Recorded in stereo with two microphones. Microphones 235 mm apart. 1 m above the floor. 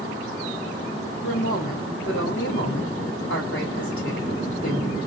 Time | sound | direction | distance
1.2 | a woman speaking | 65° left (ahead or behind) | 2 m